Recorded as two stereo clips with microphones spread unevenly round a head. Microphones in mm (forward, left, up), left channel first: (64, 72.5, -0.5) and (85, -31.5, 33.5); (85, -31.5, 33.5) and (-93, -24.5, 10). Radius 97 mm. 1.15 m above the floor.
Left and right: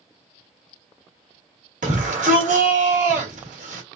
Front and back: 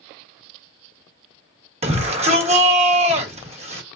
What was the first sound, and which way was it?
A shout, 125° right.